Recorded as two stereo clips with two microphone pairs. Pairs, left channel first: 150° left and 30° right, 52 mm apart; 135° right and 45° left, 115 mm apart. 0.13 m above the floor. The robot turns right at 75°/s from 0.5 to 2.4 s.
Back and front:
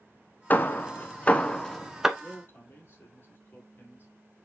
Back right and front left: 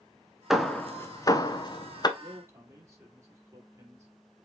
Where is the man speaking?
90° left, 3.5 m; by 4.1 s 105° left, 3.5 m.